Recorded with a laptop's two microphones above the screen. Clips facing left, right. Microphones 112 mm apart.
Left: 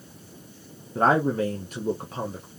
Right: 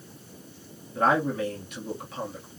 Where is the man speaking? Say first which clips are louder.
Left 3 dB; 35° left (ahead or behind), 1.0 m.